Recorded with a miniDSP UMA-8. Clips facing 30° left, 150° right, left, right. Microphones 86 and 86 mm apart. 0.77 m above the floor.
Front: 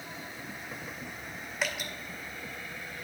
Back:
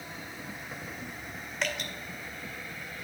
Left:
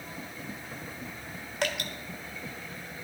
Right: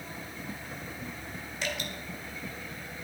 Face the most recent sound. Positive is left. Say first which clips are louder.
# back 1 dB, left 4 dB
turn(degrees=115)